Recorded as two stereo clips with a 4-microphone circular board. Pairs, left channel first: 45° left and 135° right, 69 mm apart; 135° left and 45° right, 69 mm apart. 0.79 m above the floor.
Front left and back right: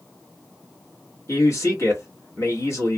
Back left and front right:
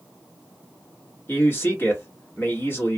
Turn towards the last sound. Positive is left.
turn(degrees=85)